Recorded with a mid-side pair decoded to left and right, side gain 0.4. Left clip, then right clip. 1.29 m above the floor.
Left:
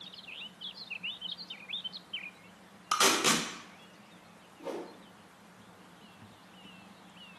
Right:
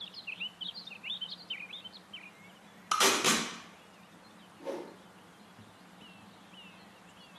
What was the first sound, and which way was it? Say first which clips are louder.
Tape being pulled: even; 5° left.